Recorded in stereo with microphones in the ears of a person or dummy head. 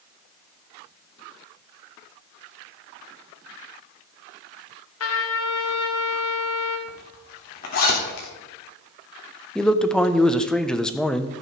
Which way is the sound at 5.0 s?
80° left.